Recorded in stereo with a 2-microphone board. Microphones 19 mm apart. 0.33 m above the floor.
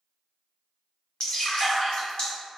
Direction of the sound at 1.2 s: 55° left (ahead or behind).